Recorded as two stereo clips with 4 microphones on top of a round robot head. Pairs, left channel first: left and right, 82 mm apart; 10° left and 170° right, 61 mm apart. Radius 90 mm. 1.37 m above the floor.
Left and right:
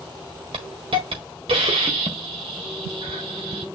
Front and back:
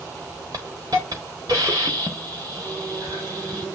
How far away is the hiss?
About 1.3 m.